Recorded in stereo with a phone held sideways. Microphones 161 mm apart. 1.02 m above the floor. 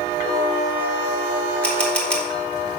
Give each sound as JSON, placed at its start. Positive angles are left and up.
{"t": 1.6, "sound": "a camera shutter", "side_deg": 5, "distance_m": 1.5}